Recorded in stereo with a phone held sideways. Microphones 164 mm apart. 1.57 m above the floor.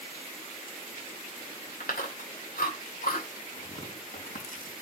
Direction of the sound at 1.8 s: 70° left (ahead or behind).